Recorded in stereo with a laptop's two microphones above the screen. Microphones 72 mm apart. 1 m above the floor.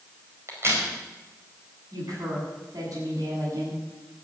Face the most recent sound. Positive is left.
turn(degrees=-55)  # may be behind; listen again after turning